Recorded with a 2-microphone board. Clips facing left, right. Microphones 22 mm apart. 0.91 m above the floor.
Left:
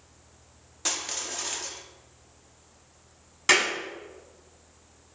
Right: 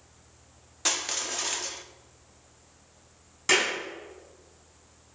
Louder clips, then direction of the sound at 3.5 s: Left 2 dB; 30° left (ahead or behind).